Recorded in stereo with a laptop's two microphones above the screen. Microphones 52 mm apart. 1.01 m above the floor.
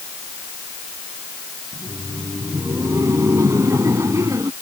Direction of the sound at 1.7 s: 85° right.